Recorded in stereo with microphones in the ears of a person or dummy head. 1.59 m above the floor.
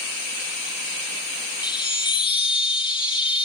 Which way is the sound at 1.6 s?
20° left (ahead or behind).